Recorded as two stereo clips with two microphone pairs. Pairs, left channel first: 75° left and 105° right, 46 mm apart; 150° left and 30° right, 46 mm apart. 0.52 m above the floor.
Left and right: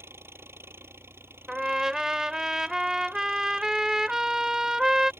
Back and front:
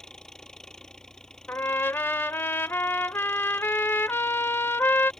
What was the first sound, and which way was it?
An engine running, 135° right.